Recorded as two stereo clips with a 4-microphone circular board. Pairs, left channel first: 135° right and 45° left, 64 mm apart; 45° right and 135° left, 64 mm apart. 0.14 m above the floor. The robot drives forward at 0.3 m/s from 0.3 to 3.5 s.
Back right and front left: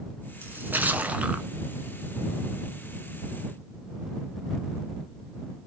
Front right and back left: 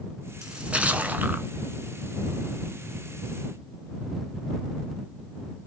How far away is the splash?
About 0.8 m.